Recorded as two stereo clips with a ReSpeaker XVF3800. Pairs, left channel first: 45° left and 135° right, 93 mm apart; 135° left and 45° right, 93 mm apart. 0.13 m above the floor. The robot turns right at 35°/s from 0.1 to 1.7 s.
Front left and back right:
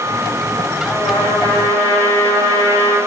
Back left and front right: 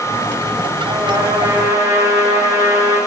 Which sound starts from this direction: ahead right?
A trumpet, at 0.9 s.